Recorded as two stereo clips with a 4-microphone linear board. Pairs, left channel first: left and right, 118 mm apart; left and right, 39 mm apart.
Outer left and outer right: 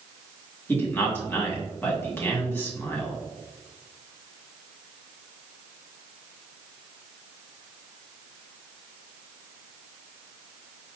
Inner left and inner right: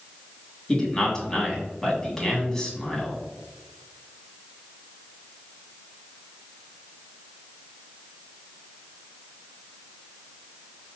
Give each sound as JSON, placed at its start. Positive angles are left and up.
{"t": 0.7, "sound": "a man speaking", "side_deg": 15, "distance_m": 1.8}